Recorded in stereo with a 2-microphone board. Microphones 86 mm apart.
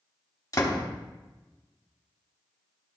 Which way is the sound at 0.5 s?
40° left (ahead or behind).